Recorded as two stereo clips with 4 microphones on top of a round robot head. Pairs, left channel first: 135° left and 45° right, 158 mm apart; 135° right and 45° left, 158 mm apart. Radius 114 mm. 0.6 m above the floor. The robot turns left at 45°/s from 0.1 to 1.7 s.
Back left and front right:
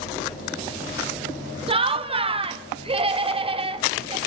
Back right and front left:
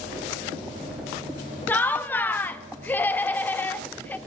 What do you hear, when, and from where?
1.7 s laughter: 65° right, 0.7 m